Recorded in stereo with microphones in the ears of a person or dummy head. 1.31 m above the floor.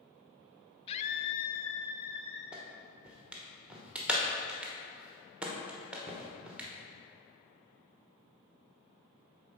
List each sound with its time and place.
0.9 s a scream: 30° left (ahead or behind), 0.7 m; by 2.4 s 45° left (ahead or behind), 1.2 m
2.5 s a clap: centre (ahead or behind), 1.1 m